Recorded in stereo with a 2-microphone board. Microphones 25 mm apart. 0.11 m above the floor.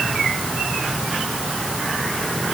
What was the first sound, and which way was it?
Only background noise.